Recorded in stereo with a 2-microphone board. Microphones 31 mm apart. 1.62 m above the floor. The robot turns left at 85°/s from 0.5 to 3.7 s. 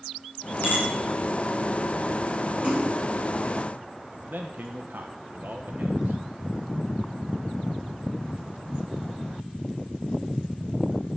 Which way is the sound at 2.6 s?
35° right (ahead or behind).